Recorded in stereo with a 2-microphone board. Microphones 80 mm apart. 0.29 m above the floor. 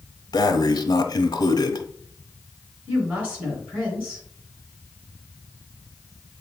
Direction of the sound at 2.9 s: 20° right (ahead or behind).